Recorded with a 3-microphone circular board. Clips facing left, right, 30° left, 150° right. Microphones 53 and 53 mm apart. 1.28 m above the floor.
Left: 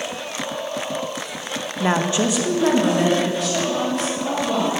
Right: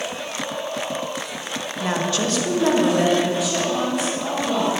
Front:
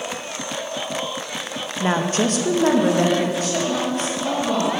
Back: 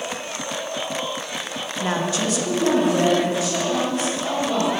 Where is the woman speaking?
80° left, 0.6 m; by 4.7 s 10° right, 3 m.